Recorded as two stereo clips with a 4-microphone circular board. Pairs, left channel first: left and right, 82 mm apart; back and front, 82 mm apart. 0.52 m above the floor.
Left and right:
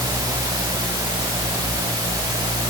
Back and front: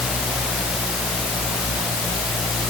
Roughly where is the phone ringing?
I don't hear a phone ringing.